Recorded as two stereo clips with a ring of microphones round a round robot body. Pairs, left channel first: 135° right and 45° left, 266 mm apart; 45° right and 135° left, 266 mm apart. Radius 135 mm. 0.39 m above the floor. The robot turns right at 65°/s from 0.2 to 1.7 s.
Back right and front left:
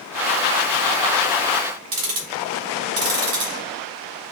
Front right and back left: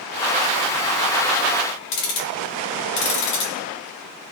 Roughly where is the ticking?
Ahead.